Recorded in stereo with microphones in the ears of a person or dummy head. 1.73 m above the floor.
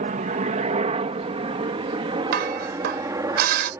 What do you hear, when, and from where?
0.0 s a helicopter: 45° right (ahead or behind); by 3.8 s 20° right (ahead or behind)
2.3 s dishes clattering: 65° right (ahead or behind)